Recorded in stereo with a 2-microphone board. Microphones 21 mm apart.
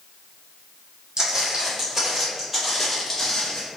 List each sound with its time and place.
1.2 s footsteps: 40° right (ahead or behind), 1.9 m; by 3.6 s 35° left (ahead or behind), 1.5 m